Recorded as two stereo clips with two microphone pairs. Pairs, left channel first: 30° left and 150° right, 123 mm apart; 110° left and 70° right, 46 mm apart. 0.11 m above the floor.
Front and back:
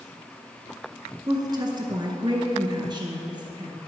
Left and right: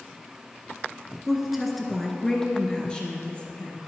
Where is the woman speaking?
145° right, 1.2 m; by 3.9 s 165° left, 1.9 m.